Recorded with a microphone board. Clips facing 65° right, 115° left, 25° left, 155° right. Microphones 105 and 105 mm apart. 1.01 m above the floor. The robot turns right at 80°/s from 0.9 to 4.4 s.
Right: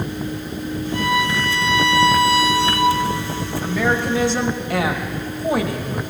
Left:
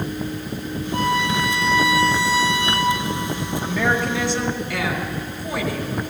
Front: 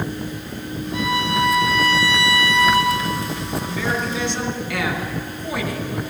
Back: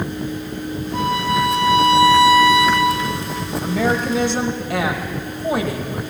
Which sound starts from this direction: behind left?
A violin, at 0.9 s.